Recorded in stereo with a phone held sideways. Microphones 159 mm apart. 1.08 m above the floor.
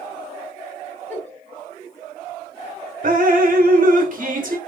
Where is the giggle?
10° left (ahead or behind), 3 m.